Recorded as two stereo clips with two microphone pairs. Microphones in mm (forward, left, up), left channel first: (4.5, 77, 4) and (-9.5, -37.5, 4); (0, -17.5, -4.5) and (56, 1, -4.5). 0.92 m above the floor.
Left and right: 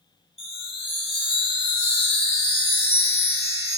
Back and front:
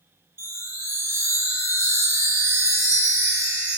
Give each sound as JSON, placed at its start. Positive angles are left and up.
{"t": 0.4, "sound": "a chime", "azimuth_deg": 55, "distance_m": 1.9}